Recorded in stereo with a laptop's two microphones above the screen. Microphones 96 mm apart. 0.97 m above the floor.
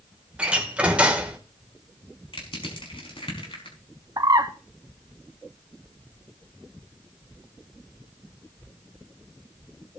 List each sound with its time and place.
0.4 s a door slam: 10° right (ahead or behind), 2.5 m
2.3 s crushing: 70° left (ahead or behind), 5 m
4.2 s a bird: 45° right (ahead or behind), 1.6 m